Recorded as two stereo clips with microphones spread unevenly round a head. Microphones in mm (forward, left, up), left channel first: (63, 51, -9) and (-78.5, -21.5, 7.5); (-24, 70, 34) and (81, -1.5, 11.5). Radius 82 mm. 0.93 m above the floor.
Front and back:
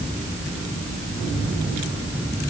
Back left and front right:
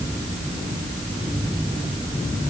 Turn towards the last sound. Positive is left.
No sound to turn to.